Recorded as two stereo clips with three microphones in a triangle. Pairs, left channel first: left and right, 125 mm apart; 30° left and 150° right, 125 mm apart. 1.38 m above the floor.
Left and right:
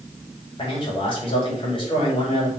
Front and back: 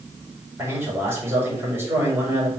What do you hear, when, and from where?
0.6 s a man speaking: 140° left, 4 m